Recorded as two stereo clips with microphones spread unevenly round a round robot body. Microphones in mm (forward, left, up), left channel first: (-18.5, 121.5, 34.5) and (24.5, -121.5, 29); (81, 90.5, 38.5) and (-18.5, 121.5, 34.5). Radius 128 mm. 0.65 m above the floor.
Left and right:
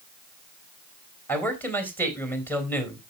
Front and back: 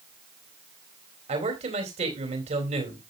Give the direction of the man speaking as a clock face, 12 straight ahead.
6 o'clock.